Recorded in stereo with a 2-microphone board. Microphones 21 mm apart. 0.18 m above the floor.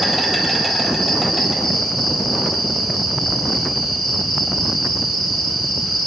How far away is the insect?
About 4 m.